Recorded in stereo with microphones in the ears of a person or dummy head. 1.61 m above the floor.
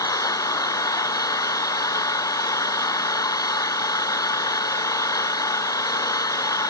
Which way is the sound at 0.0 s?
25° left (ahead or behind).